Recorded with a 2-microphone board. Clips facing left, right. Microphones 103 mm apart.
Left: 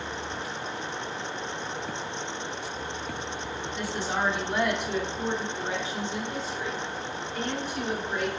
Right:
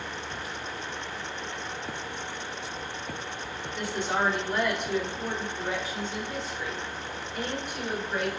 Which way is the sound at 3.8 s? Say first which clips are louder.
Right 2 dB; centre (ahead or behind).